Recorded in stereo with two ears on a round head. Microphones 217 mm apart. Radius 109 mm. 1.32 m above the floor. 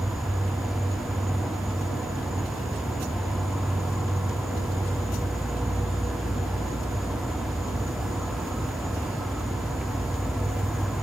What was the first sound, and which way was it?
An insect, centre (ahead or behind).